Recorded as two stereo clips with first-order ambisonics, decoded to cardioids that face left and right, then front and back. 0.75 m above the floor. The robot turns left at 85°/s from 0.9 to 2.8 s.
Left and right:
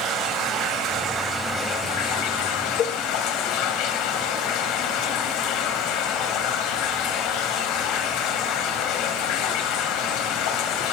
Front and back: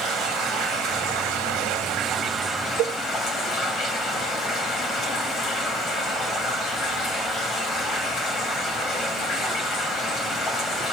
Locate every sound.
0.0 s running water: 130° right, 2.5 m; by 10.9 s 70° left, 2.5 m
2.8 s a cowbell: 140° left, 1.7 m; by 3.0 s 135° left, 1.7 m